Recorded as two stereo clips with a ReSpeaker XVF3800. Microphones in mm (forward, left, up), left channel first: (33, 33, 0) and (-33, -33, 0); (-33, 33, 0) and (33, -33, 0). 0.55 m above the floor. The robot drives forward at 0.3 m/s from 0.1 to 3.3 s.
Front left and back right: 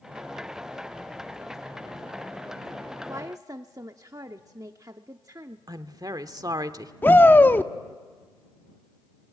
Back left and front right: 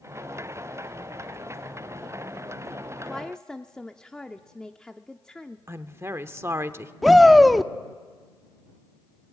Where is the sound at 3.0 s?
140° right, 0.7 m; by 5.6 s 145° right, 0.7 m.